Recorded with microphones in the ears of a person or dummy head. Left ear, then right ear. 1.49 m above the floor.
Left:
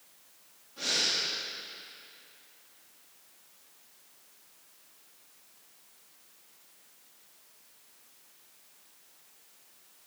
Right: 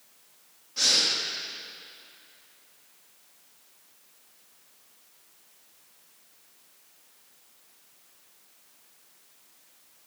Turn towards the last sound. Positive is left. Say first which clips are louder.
# right 6 dB
turn(degrees=-70)  # may be behind; listen again after turning